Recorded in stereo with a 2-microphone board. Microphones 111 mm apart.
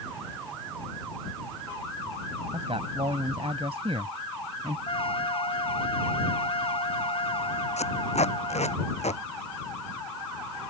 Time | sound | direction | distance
2.5 | a man speaking | 65° right (ahead or behind) | ?
4.9 | a trumpet | 55° left (ahead or behind) | ?
7.8 | tape being pulled | 80° left | ?